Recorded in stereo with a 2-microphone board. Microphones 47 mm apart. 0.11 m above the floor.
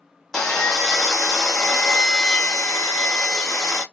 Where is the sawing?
10° left (ahead or behind), 1.0 m.